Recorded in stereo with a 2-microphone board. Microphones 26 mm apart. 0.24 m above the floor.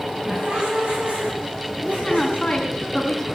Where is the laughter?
60° right (ahead or behind), 8 m; by 2.9 s 50° right (ahead or behind), 10 m.